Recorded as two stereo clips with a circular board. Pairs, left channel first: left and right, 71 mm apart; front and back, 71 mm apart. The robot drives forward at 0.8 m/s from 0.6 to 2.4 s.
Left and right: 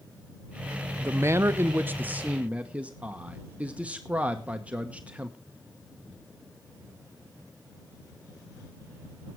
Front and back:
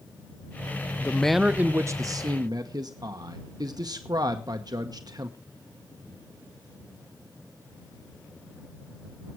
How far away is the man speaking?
About 0.6 m.